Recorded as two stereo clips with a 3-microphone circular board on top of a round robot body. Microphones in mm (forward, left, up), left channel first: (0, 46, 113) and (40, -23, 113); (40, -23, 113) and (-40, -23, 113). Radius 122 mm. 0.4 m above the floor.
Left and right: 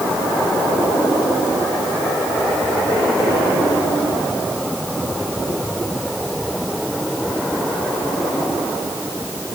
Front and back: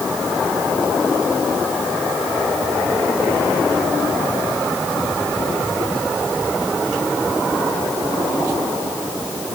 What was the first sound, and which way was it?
Only background noise.